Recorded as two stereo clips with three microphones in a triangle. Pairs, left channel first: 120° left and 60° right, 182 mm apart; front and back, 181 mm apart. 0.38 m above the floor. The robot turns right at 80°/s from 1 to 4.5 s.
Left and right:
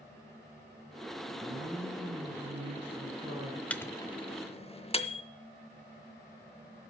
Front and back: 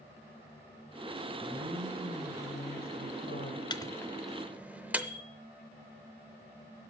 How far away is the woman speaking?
About 3 m.